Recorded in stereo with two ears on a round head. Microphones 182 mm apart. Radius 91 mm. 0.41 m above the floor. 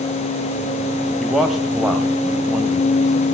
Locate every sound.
1.2 s a man speaking: centre (ahead or behind), 1.7 m